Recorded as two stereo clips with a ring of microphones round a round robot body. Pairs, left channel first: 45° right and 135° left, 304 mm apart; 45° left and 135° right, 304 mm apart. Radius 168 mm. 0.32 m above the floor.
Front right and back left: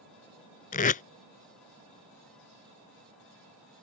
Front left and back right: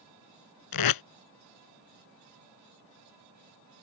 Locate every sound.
0.7 s tape being pulled: 20° left